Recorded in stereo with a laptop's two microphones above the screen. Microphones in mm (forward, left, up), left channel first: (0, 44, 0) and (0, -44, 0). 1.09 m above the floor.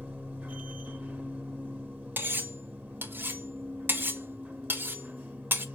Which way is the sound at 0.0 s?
20° right (ahead or behind).